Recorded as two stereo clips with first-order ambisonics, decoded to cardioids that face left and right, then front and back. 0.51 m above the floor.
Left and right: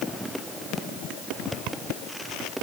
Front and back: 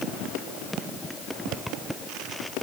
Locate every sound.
Only background noise.